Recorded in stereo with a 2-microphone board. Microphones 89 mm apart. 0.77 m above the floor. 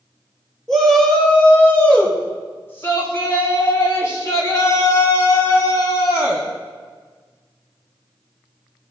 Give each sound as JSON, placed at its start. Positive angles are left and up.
{"t": 0.7, "sound": "a shout", "side_deg": 5, "distance_m": 2.5}